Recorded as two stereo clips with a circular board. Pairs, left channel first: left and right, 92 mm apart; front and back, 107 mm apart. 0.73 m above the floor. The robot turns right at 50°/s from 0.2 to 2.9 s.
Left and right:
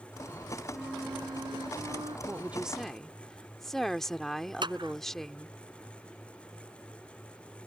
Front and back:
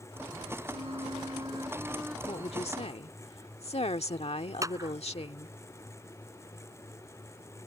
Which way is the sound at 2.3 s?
30° right.